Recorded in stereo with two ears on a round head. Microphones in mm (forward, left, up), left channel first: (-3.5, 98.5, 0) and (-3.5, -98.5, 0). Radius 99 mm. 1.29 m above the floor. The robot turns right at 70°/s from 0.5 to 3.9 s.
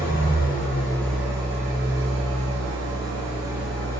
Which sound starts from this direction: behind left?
An engine running, at 0.0 s.